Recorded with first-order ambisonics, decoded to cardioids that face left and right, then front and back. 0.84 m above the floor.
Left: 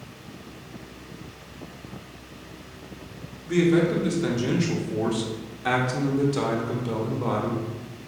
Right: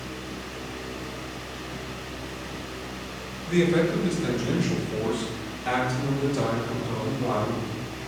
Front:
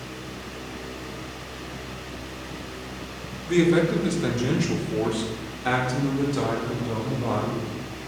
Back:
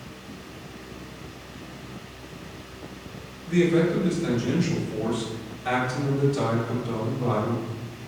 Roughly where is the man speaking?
Ahead.